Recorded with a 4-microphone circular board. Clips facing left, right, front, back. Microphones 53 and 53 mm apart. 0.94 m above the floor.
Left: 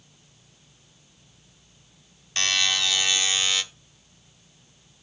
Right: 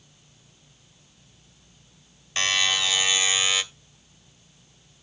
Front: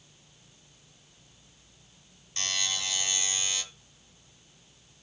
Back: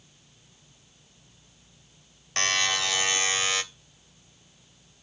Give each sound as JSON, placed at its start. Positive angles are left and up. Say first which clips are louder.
{"t": 2.4, "sound": "a buzzer", "louder": "right 1 dB, back 8 dB", "azimuth_deg": -170, "distance_m": 1.0}